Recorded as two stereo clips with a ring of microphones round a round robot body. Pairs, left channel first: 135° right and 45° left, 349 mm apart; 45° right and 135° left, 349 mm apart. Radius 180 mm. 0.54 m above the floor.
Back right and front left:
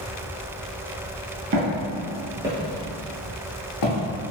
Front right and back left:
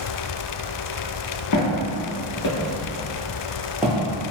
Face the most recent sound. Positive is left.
turn(degrees=-140)